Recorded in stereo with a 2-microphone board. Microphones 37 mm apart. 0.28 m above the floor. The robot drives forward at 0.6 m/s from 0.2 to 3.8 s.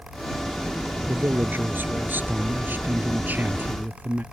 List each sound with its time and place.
1.1 s a man speaking: 60° right (ahead or behind); by 4.2 s 45° right (ahead or behind)